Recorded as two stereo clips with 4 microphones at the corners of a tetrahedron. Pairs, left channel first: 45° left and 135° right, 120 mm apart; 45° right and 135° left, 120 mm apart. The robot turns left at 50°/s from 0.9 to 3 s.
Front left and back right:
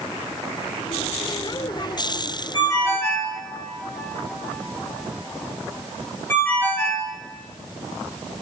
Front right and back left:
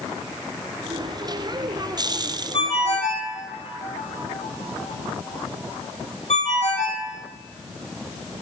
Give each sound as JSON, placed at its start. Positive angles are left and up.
{"t": 2.5, "sound": "a ringtone", "azimuth_deg": -5, "distance_m": 1.3}